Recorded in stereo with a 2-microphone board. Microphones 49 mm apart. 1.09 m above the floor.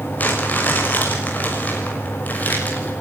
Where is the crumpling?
35° left (ahead or behind), 6 m.